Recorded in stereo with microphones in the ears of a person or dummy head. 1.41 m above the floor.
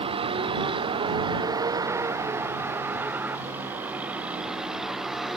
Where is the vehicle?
35° right (ahead or behind); by 5.4 s 5° right (ahead or behind).